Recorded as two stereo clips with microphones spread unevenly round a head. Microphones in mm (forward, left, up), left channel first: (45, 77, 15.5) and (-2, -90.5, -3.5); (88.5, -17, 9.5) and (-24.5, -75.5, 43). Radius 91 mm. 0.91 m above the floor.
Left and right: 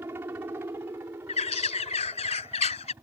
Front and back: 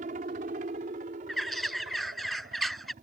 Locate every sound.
0.0 s a helicopter: straight behind
1.3 s a bird: 125° left